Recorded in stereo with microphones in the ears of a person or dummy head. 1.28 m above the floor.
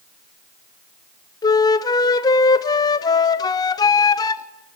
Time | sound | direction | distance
1.4 | a flute | 20° left (ahead or behind) | 0.5 m